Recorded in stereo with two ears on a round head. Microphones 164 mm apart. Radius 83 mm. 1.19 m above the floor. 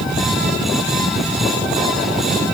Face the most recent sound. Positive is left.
No sound to turn to.